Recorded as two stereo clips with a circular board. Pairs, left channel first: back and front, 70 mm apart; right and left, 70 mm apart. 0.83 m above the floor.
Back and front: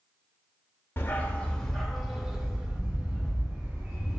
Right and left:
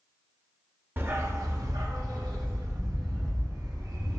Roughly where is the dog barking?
Behind left.